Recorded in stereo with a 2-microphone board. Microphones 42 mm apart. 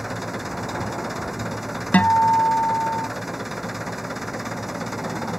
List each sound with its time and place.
0.0 s an engine running: centre (ahead or behind)
1.9 s a guitar: 40° left (ahead or behind)